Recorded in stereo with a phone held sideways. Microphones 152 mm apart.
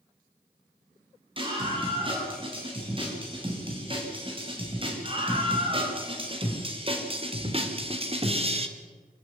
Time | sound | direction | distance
1.4 | a scream | 35° right (ahead or behind) | 9 m